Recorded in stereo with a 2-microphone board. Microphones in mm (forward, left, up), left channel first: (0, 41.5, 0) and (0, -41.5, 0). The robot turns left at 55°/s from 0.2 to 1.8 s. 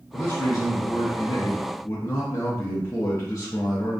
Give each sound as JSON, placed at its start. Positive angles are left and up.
{"t": 0.1, "sound": "a man speaking", "azimuth_deg": 140, "distance_m": 0.6}